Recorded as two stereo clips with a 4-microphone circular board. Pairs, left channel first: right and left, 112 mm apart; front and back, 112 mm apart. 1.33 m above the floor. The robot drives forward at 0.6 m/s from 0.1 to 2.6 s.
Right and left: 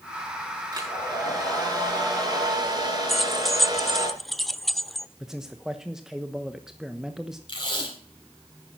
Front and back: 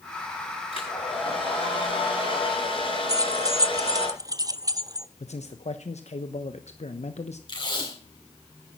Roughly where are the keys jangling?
Behind.